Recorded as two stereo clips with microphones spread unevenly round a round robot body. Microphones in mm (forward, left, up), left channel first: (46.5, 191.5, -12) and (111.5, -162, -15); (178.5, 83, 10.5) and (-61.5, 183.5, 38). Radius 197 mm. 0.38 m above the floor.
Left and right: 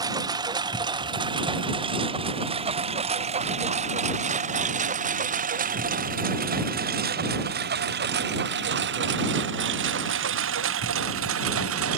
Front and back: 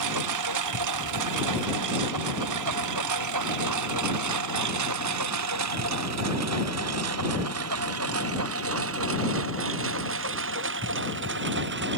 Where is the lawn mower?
160° right; by 12.0 s 140° right.